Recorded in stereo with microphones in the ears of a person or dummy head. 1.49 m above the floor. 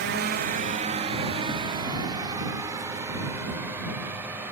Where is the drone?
55° right (ahead or behind); by 4.5 s 10° right (ahead or behind).